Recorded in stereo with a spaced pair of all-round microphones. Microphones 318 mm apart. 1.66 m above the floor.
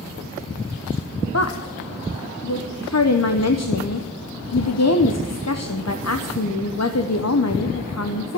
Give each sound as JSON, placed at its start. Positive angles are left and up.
{"t": 1.3, "sound": "a woman speaking", "side_deg": 55, "distance_m": 0.9}